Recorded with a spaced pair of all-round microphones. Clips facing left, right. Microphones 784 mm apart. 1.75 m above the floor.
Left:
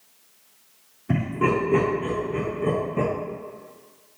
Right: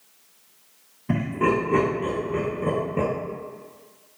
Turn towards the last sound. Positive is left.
turn(degrees=0)  # may be behind; listen again after turning